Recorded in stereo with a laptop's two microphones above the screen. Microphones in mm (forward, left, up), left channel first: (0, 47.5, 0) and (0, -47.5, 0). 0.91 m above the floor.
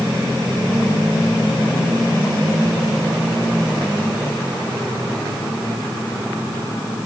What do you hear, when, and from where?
Only background noise.